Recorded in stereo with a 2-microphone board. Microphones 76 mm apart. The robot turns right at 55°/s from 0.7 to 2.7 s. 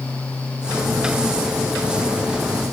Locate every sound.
Only background noise.